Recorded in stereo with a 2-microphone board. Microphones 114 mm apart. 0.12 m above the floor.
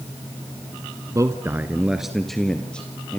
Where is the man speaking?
30° right (ahead or behind), 1.2 m; by 3.2 s 10° left (ahead or behind), 3 m.